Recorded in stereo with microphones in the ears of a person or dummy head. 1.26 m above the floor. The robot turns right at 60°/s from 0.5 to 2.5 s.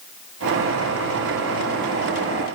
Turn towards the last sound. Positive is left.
No sound to turn to.